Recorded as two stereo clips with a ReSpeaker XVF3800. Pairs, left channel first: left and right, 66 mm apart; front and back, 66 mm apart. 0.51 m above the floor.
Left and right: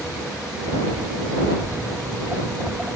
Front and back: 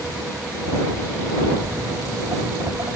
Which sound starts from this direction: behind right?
Footsteps, at 1.6 s.